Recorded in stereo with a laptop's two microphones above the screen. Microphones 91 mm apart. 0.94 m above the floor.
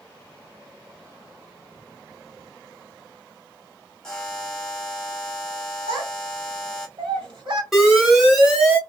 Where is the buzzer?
10° left (ahead or behind), 1.0 m.